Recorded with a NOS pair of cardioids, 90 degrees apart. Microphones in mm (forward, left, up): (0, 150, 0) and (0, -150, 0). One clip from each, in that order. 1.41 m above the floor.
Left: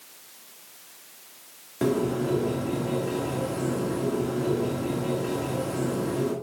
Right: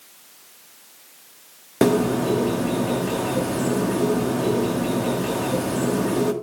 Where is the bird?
65° right, 1.9 m.